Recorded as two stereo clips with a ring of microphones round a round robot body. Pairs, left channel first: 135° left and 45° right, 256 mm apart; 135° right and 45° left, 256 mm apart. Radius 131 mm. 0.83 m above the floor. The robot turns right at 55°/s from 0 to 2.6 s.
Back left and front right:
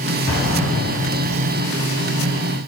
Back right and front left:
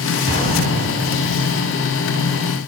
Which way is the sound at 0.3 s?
95° left.